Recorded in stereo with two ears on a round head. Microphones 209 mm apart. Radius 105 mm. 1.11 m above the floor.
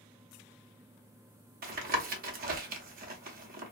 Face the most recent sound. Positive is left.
turn(degrees=-40)  # may be behind; listen again after turning